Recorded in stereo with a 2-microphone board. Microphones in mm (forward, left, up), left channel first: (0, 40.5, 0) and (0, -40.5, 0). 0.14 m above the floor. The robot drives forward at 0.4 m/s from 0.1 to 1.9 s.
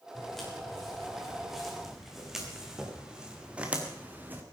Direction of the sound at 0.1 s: Centre (ahead or behind).